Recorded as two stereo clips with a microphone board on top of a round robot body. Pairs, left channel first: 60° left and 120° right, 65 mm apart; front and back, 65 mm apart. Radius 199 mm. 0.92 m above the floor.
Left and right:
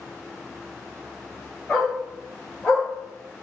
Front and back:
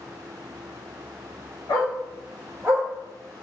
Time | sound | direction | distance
1.7 | a dog barking | 25° right | 1.4 m